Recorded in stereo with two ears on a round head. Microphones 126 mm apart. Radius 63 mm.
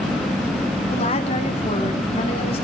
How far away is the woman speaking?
About 3 m.